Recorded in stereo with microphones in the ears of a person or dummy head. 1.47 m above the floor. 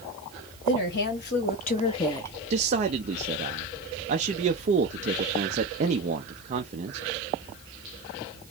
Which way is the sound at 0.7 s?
55° left (ahead or behind).